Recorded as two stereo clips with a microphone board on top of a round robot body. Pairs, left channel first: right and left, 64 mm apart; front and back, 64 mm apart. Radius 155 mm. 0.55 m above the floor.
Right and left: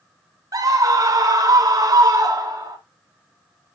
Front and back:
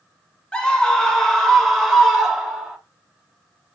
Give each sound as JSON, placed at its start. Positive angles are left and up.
{"t": 0.5, "sound": "a scream", "azimuth_deg": 75, "distance_m": 3.0}